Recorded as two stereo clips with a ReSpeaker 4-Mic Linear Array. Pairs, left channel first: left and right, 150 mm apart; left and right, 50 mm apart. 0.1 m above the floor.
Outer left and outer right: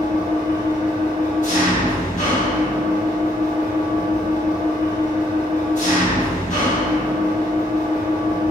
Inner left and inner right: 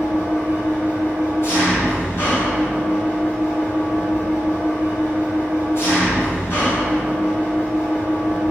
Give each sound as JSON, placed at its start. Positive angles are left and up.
{"t": 0.0, "sound": "an engine running", "side_deg": 55, "distance_m": 1.3}